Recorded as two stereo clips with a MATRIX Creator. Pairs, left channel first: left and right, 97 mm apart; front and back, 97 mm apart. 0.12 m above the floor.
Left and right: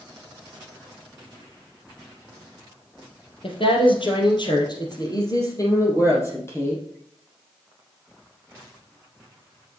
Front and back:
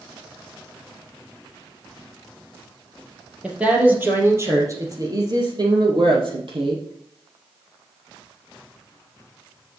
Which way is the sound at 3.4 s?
100° left.